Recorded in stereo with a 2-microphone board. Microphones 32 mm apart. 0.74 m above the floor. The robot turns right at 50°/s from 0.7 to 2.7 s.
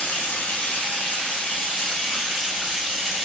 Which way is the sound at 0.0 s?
85° left.